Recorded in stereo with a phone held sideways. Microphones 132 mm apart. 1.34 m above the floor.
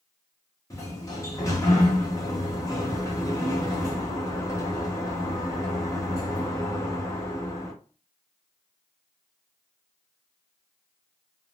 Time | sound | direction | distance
0.7 | a sliding door | 25° left (ahead or behind) | 1.0 m